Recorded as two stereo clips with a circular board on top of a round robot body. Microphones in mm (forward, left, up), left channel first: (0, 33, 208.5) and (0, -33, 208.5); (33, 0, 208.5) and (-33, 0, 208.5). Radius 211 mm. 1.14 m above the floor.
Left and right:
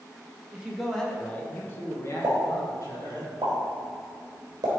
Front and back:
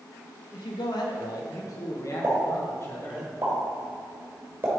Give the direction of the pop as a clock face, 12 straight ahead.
4 o'clock.